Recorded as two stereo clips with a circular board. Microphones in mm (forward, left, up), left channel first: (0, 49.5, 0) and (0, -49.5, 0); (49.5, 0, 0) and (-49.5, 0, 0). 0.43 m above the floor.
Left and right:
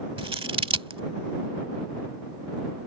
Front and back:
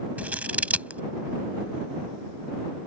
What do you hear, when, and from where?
0.2 s scissors: 105° right